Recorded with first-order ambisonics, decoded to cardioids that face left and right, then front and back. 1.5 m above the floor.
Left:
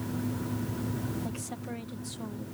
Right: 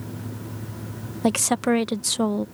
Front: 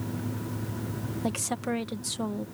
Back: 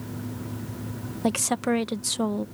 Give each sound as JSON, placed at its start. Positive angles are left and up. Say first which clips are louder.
{"t": 1.2, "sound": "a woman speaking", "louder": "right 17 dB, back 7 dB", "azimuth_deg": -110}